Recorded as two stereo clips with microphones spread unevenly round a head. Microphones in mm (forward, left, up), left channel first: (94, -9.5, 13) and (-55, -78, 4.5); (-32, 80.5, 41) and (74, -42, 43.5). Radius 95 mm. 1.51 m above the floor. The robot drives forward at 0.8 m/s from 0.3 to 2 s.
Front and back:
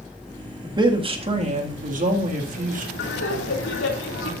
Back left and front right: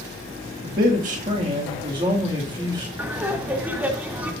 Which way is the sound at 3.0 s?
30° left.